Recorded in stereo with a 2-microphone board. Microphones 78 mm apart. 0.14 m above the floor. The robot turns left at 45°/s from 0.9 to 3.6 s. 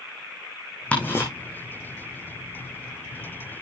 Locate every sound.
0.9 s ticking: 15° left (ahead or behind), 4.5 m; by 1.2 s 30° left (ahead or behind), 4.5 m